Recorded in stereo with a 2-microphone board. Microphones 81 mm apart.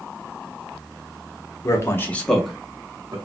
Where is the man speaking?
40° left (ahead or behind), 0.8 m; by 3.2 s 35° right (ahead or behind), 0.8 m.